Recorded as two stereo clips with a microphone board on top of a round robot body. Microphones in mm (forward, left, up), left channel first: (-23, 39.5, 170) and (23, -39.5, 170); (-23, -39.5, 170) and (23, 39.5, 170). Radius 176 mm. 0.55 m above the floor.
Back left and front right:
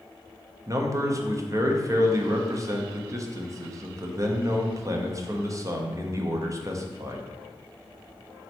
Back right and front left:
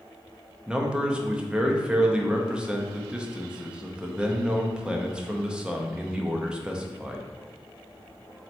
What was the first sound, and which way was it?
A man speaking, 20° right.